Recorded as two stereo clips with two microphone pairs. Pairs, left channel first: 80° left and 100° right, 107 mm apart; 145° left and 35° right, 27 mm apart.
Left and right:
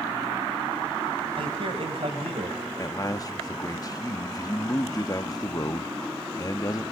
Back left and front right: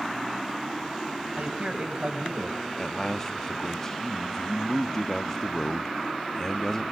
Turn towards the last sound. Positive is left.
turn(degrees=90)